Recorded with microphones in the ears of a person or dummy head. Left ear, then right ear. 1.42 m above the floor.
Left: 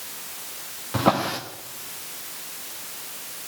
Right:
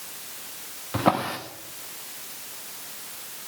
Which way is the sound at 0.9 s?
15° right (ahead or behind).